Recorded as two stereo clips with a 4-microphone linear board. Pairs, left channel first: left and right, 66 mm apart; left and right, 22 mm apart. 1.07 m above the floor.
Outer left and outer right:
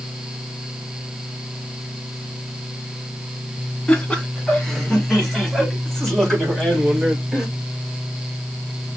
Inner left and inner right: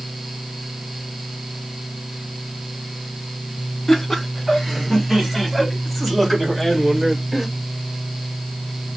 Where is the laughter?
15° left (ahead or behind), 2.5 m; by 7.5 s 5° right (ahead or behind), 5 m.